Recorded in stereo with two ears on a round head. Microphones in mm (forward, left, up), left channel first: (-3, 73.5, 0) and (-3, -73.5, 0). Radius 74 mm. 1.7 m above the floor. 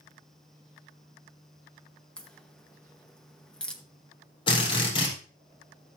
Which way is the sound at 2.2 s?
5° left (ahead or behind).